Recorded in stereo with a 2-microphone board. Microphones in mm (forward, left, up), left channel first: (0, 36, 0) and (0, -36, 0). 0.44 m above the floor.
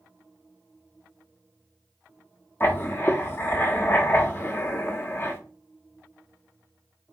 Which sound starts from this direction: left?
Writing, at 2.6 s.